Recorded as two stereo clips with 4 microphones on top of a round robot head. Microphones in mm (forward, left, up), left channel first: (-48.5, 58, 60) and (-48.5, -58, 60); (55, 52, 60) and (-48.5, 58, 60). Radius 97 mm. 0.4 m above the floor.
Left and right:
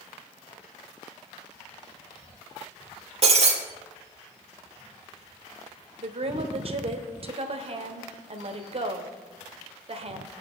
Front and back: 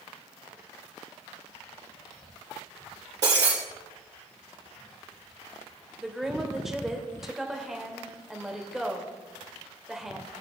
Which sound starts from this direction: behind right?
Breaking glass, at 3.2 s.